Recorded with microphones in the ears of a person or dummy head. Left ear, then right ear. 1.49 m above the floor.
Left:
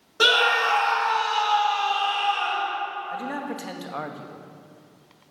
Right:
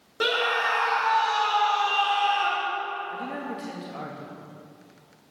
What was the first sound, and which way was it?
A scream, 30° left (ahead or behind).